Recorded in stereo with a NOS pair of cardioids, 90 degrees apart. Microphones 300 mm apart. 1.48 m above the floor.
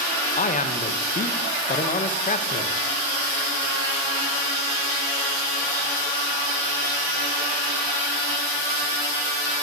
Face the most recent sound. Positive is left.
turn(degrees=25)